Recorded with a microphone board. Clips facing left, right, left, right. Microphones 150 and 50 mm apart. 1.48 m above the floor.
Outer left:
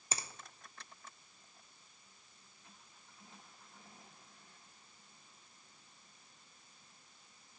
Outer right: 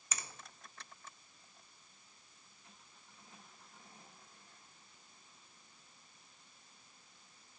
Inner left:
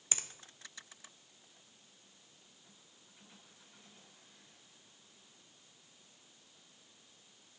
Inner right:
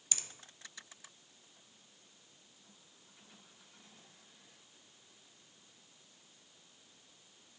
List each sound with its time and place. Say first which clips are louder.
0.1 s a finger snap: outer left 3 dB, inner left 4 dB; 30° left (ahead or behind), 0.6 m